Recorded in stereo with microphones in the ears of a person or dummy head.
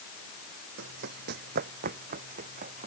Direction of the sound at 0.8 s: 55° right (ahead or behind).